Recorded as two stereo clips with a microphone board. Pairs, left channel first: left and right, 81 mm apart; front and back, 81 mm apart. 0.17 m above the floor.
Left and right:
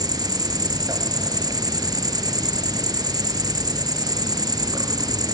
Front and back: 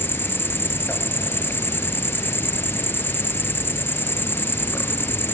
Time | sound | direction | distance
0.0 | an insect | 60° right | 1.5 m